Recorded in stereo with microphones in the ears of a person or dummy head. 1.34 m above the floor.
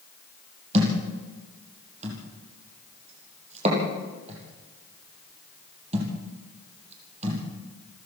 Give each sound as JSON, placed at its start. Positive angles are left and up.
{"t": 0.7, "sound": "a thud", "side_deg": -40, "distance_m": 7.0}